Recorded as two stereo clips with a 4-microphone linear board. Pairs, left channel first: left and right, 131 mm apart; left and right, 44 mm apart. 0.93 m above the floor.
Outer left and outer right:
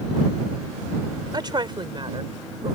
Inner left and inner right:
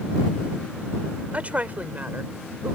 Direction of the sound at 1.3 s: 35° right (ahead or behind).